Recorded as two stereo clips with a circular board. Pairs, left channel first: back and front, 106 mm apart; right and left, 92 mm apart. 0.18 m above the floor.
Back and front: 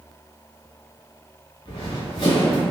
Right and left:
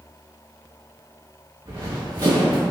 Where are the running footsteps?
135° left, 1.2 m.